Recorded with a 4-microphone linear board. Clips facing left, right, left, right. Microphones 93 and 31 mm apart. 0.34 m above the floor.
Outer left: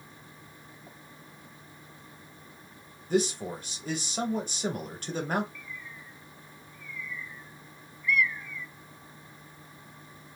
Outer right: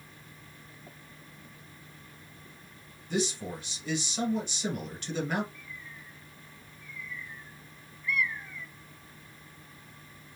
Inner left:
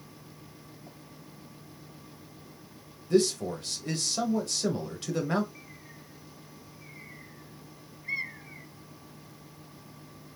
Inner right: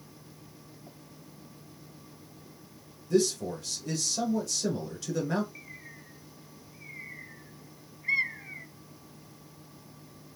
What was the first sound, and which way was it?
A man speaking, 40° left (ahead or behind).